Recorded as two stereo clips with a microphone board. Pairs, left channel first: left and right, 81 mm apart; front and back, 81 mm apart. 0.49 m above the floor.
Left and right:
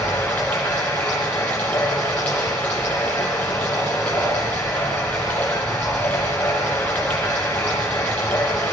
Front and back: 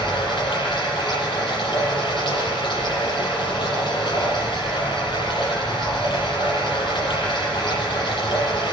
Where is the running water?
20° left, 8.5 m.